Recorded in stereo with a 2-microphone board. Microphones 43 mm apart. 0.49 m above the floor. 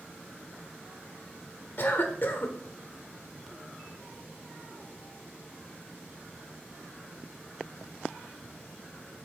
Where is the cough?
50° left (ahead or behind), 1.2 m.